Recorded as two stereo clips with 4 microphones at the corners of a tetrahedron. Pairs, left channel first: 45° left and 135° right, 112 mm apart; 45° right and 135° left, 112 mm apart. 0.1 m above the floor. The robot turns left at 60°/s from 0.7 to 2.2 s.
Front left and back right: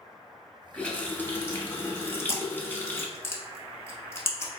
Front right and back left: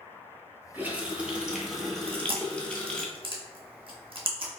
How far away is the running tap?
About 0.9 m.